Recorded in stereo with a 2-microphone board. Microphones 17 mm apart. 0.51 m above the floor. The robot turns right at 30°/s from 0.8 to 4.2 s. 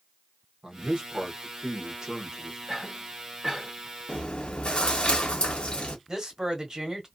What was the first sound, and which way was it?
A man speaking, 90° right.